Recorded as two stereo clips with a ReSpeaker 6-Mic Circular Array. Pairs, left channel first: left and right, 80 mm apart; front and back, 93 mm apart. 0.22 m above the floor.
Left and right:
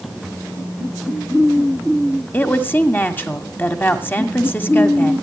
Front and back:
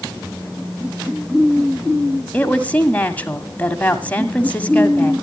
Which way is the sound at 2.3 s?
55° left.